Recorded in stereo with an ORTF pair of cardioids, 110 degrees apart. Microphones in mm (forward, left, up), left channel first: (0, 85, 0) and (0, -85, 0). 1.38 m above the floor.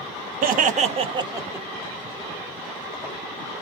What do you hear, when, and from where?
0.4 s laughter: 65° right, 0.8 m; by 1.7 s 10° right, 0.9 m